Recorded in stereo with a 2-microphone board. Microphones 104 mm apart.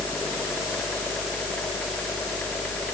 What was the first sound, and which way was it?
Only background noise.